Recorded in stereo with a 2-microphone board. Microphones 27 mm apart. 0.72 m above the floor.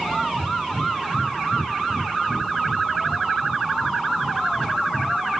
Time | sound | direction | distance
0.3 | breathing | 50° left (ahead or behind) | 3 m